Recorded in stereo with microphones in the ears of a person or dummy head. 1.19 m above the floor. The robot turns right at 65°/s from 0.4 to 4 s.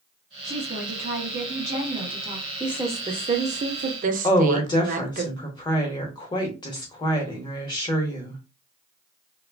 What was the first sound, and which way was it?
A woman speaking, 165° right.